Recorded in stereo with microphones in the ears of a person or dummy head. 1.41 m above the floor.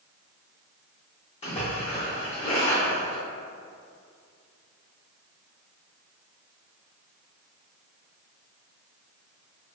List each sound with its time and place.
1.4 s a splash: 35° left (ahead or behind), 1.6 m